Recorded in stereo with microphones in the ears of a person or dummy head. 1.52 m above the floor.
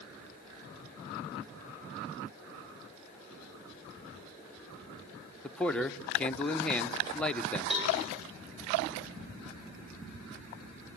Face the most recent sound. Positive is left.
turn(degrees=-40)  # may be behind; listen again after turning